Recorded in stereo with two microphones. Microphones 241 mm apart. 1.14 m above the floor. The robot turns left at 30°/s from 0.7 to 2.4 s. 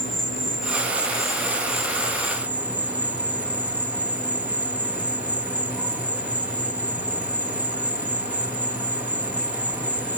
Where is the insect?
120° right; by 10.2 s 170° right.